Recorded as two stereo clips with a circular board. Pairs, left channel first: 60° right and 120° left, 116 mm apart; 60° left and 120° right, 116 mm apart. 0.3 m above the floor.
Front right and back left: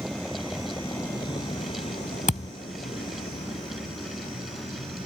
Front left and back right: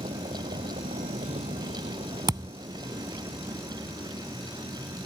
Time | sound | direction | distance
0.0 | a vehicle | 150° right | ?
2.3 | a thud | 65° right | ?